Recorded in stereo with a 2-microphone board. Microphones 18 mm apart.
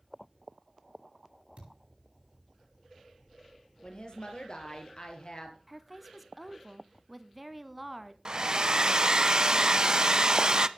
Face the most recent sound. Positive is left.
turn(degrees=-40)  # may be behind; listen again after turning